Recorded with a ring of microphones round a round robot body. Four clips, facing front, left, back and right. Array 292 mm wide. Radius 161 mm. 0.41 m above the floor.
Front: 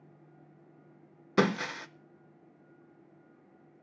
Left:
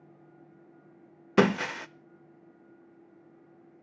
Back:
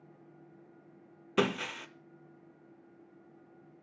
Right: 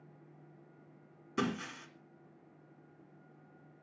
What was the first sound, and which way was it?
Breaking glass, 80° left.